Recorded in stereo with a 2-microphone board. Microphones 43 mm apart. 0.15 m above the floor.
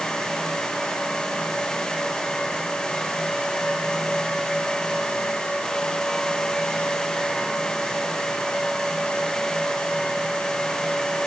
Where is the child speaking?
No child speaking in this recording.